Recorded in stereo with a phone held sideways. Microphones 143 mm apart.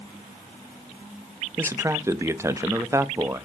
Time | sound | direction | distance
1.6 | a man speaking | 20° right (ahead or behind) | 0.6 m